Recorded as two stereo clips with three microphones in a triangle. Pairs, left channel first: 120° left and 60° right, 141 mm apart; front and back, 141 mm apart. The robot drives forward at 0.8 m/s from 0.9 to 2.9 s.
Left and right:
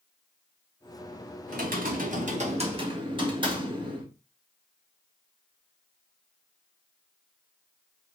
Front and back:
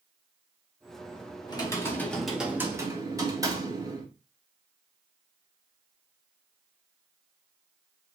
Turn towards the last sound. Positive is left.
turn(degrees=-115)